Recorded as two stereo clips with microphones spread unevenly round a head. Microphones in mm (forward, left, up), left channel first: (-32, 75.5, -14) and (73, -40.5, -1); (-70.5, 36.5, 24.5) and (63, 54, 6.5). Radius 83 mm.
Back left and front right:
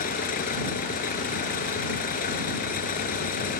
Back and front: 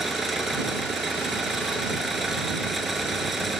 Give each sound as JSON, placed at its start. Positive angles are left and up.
{"t": 0.0, "sound": "an engine running", "azimuth_deg": 95}